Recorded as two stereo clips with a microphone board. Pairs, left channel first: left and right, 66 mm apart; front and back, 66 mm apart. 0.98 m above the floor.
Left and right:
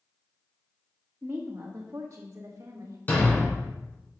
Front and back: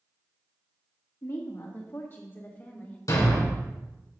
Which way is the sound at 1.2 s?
30° right.